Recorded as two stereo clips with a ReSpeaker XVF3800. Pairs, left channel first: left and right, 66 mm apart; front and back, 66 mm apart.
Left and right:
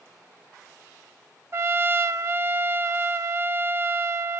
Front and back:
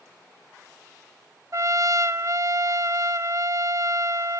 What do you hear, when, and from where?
1.5 s a trumpet: 135° right, 0.5 m